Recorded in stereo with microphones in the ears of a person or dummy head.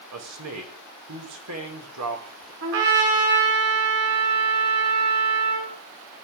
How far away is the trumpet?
About 5.5 m.